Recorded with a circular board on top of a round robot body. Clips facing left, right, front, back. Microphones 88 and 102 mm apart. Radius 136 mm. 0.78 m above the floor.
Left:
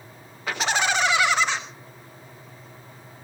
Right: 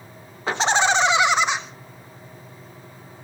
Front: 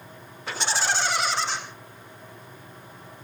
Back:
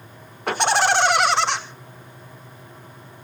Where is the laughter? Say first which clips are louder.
Right 5 dB, back 9 dB; 150° right, 3.5 m; by 1.6 s 160° right, 3 m.